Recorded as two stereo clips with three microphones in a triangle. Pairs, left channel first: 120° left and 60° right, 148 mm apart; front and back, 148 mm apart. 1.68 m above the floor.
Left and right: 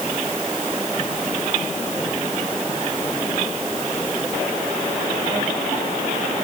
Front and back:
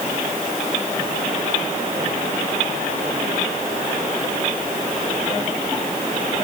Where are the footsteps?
I don't hear footsteps.